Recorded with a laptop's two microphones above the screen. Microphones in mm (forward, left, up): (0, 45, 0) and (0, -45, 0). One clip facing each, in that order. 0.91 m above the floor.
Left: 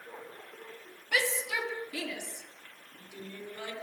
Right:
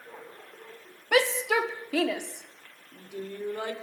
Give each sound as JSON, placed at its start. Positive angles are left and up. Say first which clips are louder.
{"t": 1.1, "sound": "a shout", "louder": "right 8 dB", "side_deg": -70, "distance_m": 2.0}